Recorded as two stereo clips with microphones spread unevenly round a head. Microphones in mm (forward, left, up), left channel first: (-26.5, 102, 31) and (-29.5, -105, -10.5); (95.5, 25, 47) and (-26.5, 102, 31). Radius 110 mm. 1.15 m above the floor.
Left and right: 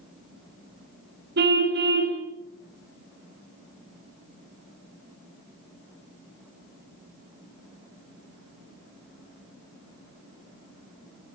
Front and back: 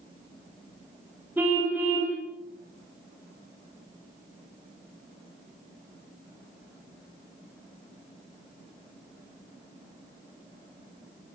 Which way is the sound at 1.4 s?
130° right.